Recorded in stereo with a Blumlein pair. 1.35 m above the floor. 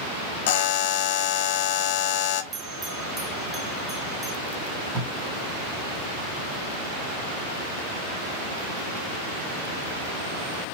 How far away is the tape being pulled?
About 3 m.